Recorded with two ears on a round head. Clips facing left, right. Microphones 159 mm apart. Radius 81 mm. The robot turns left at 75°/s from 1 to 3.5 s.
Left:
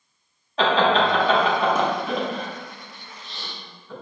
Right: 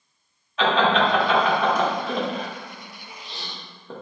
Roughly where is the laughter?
Left.